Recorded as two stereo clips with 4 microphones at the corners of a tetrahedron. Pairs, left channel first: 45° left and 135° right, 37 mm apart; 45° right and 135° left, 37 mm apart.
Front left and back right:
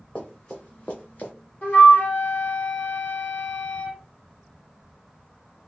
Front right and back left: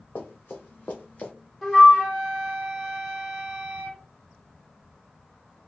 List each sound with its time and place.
0.1 s running footsteps: 15° right, 1.8 m; by 1.3 s 10° left, 1.4 m
1.6 s a flute: 35° left, 2.0 m